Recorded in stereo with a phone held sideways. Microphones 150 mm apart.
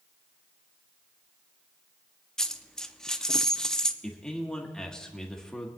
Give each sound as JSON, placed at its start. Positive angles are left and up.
{"t": 2.4, "sound": "a dropped coin", "side_deg": 5, "distance_m": 0.5}
{"t": 4.0, "sound": "a man speaking", "side_deg": 5, "distance_m": 1.6}